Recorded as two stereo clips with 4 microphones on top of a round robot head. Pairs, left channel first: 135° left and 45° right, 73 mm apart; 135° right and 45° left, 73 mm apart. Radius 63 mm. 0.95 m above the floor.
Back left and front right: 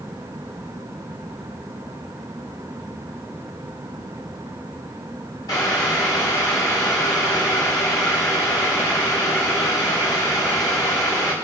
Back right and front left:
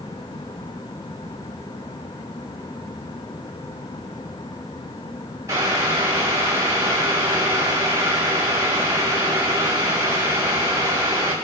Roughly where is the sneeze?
No sneeze in this recording.